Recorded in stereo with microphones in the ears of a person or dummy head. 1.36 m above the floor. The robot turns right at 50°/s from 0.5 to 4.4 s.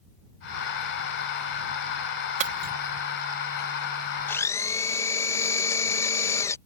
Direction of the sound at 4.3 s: 15° left (ahead or behind).